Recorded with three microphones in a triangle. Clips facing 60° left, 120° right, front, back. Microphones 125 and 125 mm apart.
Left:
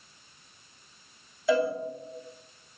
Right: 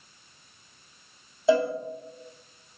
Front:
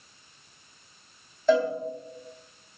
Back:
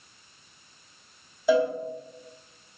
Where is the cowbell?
110° right, 0.5 m.